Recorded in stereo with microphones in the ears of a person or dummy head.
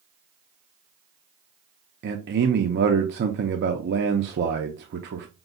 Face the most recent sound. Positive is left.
turn(degrees=-50)  # may be behind; listen again after turning